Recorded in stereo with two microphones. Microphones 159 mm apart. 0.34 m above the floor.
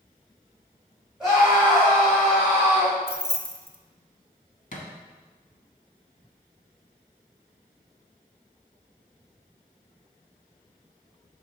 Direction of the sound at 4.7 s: 60° left (ahead or behind).